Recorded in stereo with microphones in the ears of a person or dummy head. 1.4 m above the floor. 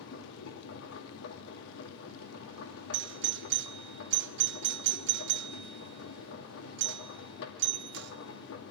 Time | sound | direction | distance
0.0 | a machine running | 75° left (ahead or behind) | 2 m
2.9 | a doorbell | 60° right (ahead or behind) | 0.5 m